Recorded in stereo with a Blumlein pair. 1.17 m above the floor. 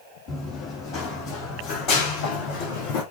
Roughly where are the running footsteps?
Ahead.